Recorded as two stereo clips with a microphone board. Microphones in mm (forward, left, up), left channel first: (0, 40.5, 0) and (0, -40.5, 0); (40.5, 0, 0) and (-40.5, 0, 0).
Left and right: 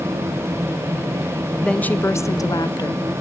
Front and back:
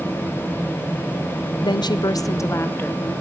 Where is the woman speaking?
10° left, 0.6 m; by 3.0 s 70° left, 0.9 m.